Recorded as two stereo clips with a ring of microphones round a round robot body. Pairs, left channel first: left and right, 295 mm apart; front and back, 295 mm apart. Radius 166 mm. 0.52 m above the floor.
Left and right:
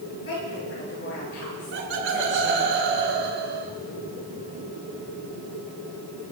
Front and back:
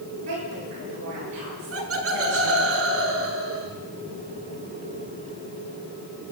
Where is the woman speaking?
140° left, 9 m; by 2.7 s 155° left, 8 m.